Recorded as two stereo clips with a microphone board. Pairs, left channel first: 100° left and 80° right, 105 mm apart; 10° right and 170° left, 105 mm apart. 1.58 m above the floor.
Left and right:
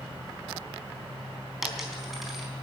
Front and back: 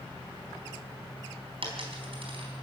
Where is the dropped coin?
165° right, 4 m.